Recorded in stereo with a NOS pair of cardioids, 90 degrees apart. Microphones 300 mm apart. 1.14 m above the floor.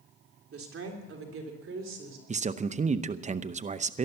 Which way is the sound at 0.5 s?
45° right.